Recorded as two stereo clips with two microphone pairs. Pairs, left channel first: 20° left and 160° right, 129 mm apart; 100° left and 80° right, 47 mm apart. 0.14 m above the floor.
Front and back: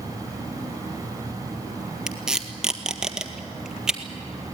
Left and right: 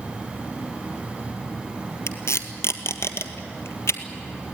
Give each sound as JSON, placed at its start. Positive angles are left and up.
{"t": 2.1, "sound": "tape being pulled", "azimuth_deg": 115, "distance_m": 1.4}